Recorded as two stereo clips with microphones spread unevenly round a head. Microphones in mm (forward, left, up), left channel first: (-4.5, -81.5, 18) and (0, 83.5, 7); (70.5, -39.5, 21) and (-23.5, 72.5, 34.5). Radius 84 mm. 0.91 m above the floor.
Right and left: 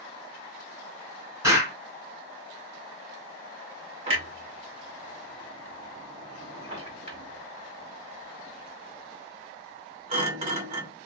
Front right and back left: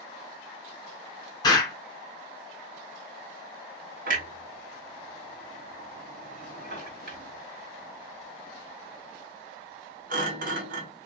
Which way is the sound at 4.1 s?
135° left.